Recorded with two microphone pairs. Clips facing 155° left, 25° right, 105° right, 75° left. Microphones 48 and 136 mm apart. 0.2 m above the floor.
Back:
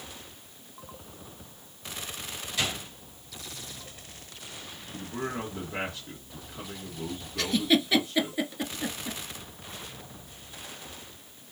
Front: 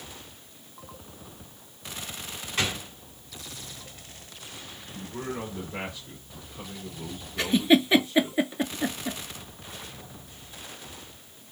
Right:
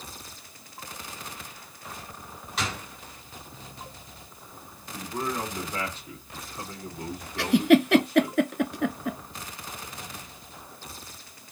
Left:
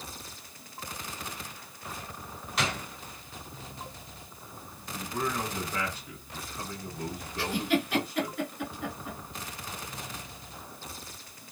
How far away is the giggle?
About 0.5 m.